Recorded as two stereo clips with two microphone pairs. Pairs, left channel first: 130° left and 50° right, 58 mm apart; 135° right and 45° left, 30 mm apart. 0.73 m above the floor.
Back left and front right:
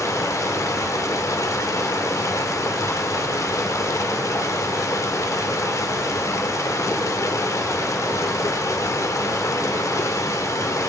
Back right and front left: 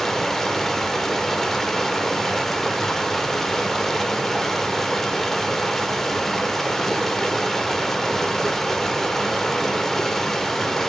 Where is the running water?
145° left, 1.7 m.